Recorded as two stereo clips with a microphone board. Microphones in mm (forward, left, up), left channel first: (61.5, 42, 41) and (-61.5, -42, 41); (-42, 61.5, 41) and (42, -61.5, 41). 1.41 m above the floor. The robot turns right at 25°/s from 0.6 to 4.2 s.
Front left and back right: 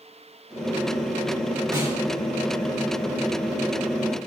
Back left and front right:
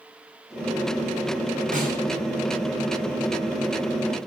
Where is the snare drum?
80° right, 4 m; by 2.0 s 75° right, 4 m.